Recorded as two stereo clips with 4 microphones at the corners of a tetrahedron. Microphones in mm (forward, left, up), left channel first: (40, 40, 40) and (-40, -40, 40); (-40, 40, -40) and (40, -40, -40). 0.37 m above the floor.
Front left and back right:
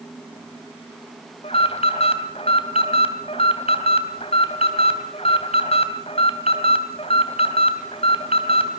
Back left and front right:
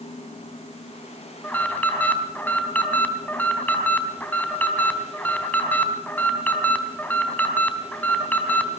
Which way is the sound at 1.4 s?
60° left.